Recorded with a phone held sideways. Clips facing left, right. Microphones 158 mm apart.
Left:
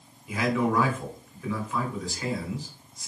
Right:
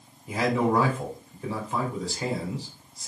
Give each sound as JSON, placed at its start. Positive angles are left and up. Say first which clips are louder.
{"t": 0.3, "sound": "a man speaking", "louder": "right 2 dB", "side_deg": -35, "distance_m": 4.5}